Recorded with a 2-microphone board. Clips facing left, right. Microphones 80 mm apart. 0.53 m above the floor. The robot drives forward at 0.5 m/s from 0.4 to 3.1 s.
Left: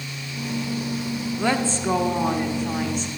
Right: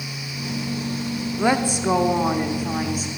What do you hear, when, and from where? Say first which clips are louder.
1.4 s a woman speaking: right 3 dB; 15° right (ahead or behind), 0.6 m; by 3.1 s 10° right (ahead or behind), 1.2 m